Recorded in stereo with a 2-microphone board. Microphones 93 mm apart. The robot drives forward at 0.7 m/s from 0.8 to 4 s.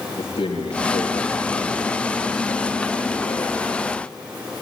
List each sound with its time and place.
0.2 s a man speaking: 80° left, 7 m; by 3.7 s 70° left (ahead or behind), 7.5 m